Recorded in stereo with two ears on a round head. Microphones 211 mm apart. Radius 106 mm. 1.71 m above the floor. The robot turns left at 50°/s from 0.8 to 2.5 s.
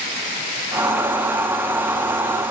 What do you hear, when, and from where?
Only background noise.